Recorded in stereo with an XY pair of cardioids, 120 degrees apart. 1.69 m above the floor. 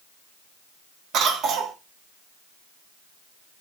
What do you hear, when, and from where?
1.1 s a cough: 65° right, 1.1 m